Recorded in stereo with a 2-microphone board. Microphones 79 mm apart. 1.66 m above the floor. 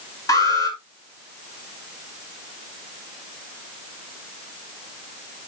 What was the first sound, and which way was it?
An alarm, 50° left (ahead or behind).